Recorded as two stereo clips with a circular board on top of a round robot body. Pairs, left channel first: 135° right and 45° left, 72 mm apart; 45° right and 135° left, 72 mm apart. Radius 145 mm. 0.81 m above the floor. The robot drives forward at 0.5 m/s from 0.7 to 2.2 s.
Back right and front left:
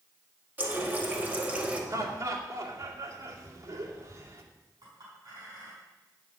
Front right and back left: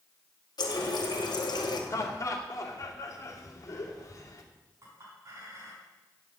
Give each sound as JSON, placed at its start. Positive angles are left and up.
{"t": 0.6, "sound": "a running tap", "azimuth_deg": -20, "distance_m": 2.0}
{"t": 1.9, "sound": "laughter", "azimuth_deg": 0, "distance_m": 2.5}
{"t": 4.8, "sound": "a clink", "azimuth_deg": 85, "distance_m": 5.5}